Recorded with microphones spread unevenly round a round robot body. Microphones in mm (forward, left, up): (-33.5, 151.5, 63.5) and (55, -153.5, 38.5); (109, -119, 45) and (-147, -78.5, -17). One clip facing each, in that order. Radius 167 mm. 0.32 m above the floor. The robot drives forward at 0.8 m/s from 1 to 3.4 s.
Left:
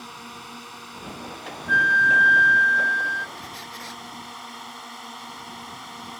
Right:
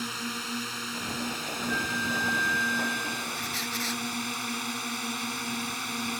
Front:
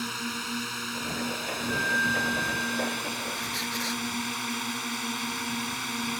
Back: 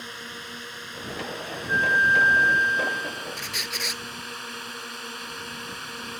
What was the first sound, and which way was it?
A drone, 30° right.